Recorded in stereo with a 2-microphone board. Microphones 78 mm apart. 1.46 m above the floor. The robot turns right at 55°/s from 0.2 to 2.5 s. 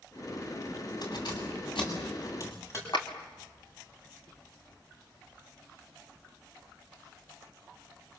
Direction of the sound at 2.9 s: 80° left.